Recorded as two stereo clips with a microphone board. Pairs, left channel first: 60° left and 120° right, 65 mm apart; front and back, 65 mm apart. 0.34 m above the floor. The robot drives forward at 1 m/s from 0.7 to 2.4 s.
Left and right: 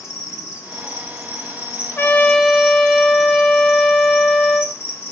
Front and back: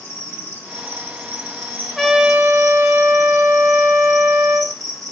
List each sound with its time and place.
0.0 s an insect: 35° left, 3 m; by 5.1 s 80° left, 2.5 m
2.0 s a trumpet: 85° left, 0.7 m; by 4.7 s 130° left, 0.8 m